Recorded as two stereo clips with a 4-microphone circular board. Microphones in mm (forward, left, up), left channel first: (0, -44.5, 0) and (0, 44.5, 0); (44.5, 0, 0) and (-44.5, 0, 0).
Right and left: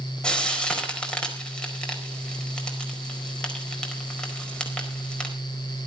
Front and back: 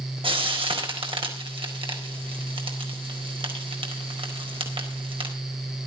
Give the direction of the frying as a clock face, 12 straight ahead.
6 o'clock.